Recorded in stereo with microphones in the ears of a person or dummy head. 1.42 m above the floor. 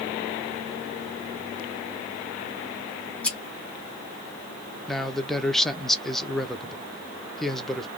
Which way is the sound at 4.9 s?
Centre (ahead or behind).